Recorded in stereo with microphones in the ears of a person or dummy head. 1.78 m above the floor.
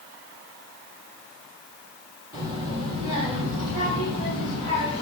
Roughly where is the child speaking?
Right.